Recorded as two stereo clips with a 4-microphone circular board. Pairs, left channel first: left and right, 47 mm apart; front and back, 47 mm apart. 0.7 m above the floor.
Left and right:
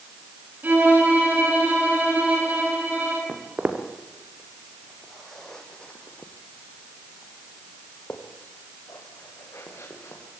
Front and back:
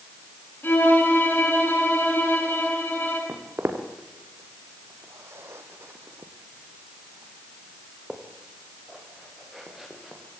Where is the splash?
No splash in this recording.